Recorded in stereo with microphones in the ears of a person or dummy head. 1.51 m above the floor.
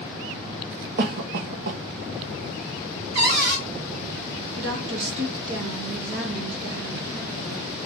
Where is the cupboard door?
55° right (ahead or behind), 2.0 m.